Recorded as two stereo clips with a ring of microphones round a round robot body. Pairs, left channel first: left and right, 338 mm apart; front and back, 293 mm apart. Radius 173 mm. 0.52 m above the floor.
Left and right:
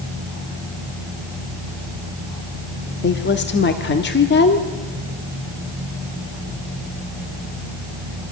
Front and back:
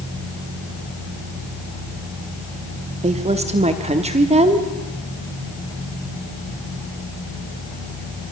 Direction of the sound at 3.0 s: 125° left.